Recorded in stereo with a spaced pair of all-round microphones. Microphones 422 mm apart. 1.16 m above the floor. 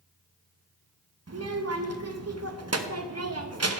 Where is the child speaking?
35° right (ahead or behind), 0.7 m.